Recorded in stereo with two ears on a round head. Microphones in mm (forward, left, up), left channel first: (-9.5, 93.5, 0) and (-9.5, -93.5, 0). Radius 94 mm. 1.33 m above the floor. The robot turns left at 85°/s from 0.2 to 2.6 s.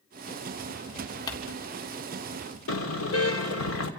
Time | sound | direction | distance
1.3 | crumpling | 20° left (ahead or behind) | 3 m
2.7 | a car horn | 75° left (ahead or behind) | 2 m